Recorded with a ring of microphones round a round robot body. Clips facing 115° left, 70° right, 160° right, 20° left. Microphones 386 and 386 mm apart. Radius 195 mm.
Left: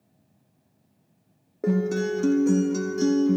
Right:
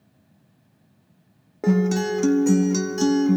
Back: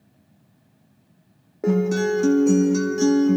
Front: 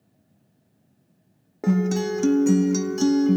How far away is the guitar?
About 0.7 m.